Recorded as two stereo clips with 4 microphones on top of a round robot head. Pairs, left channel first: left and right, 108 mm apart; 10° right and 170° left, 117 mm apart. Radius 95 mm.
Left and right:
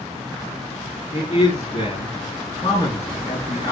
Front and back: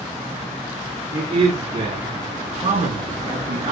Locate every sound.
1.1 s a man speaking: 125° left, 5 m; by 3.7 s 140° left, 5.5 m